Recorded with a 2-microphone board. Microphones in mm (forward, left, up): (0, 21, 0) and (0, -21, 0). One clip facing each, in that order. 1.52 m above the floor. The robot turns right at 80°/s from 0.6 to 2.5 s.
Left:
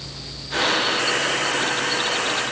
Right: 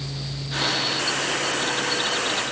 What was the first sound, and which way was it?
Only background noise.